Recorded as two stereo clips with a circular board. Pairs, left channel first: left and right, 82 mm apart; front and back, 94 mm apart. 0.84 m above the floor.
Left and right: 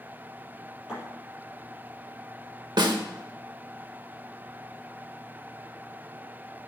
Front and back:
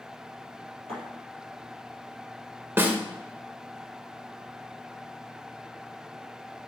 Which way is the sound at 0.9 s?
170° right.